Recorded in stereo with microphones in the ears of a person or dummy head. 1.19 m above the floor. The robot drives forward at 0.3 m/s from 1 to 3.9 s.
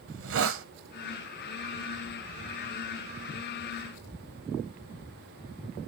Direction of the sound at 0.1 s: 55° right (ahead or behind).